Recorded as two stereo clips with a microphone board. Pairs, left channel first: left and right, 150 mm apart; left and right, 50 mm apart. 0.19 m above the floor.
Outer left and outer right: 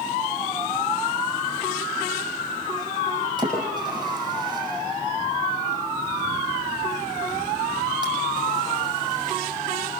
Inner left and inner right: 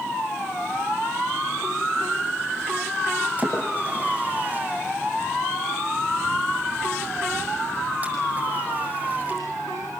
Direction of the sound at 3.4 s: 25° right (ahead or behind).